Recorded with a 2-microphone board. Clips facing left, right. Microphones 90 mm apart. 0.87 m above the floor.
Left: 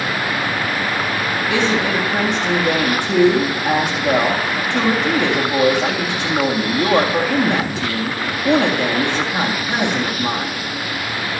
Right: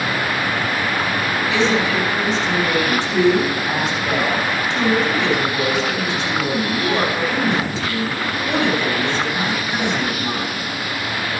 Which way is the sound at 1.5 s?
60° left (ahead or behind).